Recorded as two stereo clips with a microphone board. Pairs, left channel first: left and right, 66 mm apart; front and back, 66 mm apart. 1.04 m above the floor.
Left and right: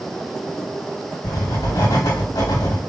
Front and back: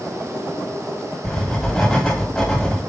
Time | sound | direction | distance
1.2 | writing | 85° left | 2.0 m